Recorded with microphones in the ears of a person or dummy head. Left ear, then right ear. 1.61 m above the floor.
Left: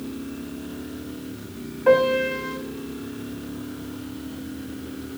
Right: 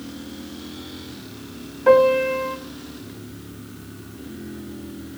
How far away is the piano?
About 3 m.